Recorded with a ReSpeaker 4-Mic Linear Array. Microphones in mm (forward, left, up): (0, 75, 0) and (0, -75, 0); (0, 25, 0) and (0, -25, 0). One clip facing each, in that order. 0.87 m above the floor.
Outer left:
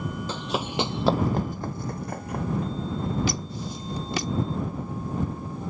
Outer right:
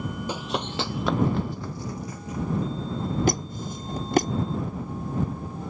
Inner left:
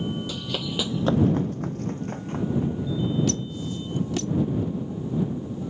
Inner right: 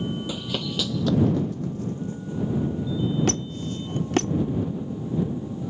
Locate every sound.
0.3 s running footsteps: 15° right (ahead or behind); by 3.1 s 70° left (ahead or behind)
3.3 s a squeak: 50° right (ahead or behind)